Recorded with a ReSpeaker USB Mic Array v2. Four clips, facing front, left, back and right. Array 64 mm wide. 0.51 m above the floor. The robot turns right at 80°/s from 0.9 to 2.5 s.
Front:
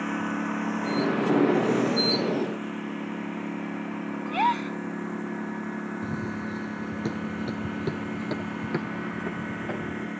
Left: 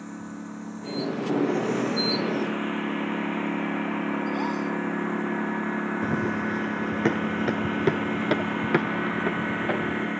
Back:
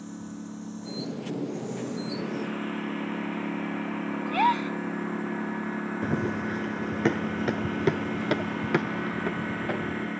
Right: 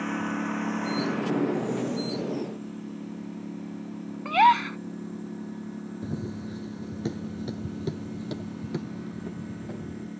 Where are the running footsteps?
140° left; by 10.1 s 95° left.